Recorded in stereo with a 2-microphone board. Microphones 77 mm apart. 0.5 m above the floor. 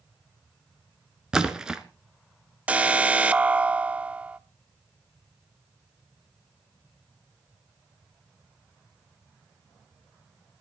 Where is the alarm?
15° right (ahead or behind), 0.7 m.